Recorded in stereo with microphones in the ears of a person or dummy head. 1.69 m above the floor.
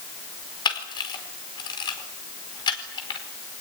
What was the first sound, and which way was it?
A camera shutter, 30° left (ahead or behind).